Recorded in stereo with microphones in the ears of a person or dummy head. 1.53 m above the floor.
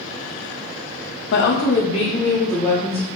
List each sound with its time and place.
1.3 s a woman speaking: 60° left (ahead or behind), 0.5 m; by 3.1 s 10° left (ahead or behind), 1.6 m